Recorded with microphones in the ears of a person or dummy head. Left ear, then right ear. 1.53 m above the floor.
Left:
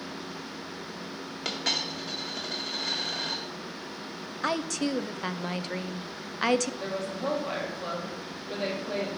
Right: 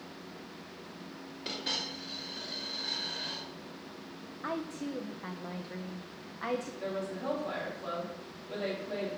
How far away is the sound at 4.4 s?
About 0.6 m.